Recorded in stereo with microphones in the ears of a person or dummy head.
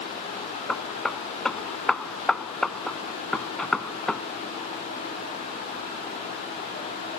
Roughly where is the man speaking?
No man speaking in this recording.